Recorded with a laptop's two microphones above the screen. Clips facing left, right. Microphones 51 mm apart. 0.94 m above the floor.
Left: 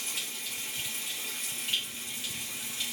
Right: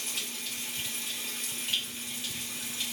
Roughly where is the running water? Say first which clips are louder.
Even; centre.